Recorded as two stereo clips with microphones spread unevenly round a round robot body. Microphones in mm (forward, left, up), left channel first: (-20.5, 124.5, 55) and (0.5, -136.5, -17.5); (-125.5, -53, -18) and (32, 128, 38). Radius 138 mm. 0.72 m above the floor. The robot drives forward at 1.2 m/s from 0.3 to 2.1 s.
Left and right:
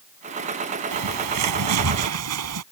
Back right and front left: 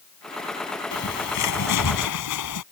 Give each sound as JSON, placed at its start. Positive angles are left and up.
{"t": 0.9, "sound": "a bird", "azimuth_deg": -95}